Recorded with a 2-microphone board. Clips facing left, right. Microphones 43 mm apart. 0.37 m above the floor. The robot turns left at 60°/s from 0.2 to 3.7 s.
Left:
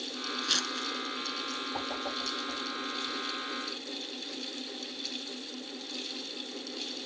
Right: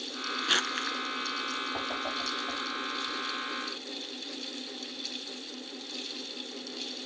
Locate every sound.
0.4 s crumpling: 25° right (ahead or behind), 0.7 m; by 1.0 s 55° right (ahead or behind), 0.7 m
1.7 s a whoosh: 5° right (ahead or behind), 5 m; by 2.6 s 60° right (ahead or behind), 5 m